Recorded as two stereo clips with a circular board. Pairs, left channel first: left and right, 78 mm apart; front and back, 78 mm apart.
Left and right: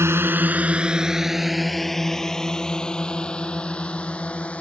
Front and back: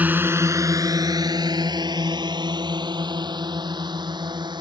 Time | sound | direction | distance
0.0 | a drone | 120° right | ?